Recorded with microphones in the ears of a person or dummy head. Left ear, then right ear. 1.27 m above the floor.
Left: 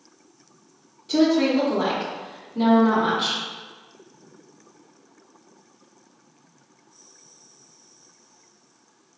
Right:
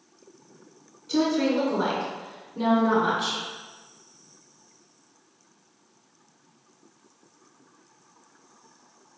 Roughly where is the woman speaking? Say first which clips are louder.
Left 4 dB; left.